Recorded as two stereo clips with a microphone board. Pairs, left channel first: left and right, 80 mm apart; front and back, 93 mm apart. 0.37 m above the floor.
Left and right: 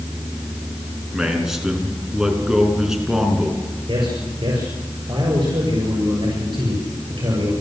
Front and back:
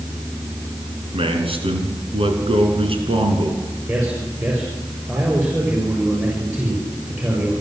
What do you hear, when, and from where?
1.1 s a man speaking: 175° right, 4.5 m
3.9 s a man speaking: 110° right, 7 m